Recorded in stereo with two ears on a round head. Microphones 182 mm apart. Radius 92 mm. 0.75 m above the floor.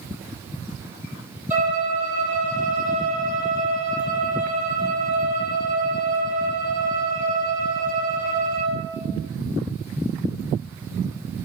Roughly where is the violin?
Centre.